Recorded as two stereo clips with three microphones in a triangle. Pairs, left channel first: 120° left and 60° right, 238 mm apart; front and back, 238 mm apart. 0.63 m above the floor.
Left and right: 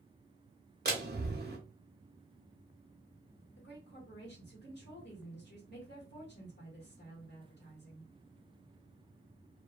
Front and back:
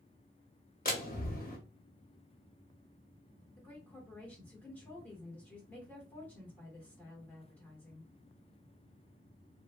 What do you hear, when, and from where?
0.8 s a door slam: 35° right, 0.8 m
3.6 s a woman speaking: 85° left, 1.5 m